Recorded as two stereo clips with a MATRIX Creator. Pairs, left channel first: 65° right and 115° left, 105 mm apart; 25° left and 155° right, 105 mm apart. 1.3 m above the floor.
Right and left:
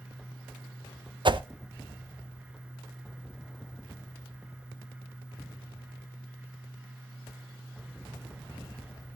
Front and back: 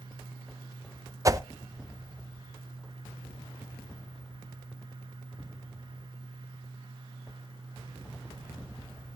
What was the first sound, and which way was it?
A whoosh, 145° left.